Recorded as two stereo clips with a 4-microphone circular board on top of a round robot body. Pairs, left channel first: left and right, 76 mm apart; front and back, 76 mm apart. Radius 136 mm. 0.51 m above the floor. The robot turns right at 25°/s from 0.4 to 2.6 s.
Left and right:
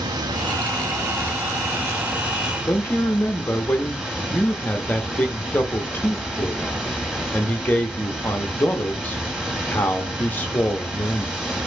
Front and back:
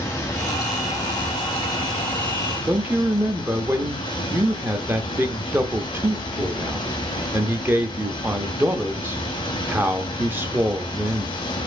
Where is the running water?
65° right, 1.5 m; by 11.7 s 10° right, 1.5 m.